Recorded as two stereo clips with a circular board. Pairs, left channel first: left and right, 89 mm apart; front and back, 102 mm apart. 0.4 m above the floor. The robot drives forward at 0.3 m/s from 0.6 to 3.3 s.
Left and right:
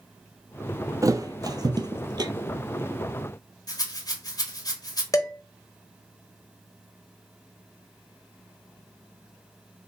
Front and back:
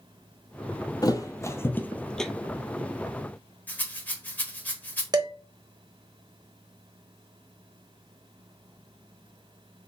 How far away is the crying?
I don't hear crying.